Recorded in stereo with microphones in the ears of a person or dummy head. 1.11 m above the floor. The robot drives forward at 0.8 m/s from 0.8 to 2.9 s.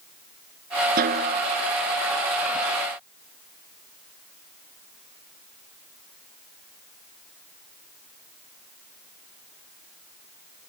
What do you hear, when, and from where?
1.0 s a snare drum: 50° right (ahead or behind); by 1.6 s 55° right (ahead or behind)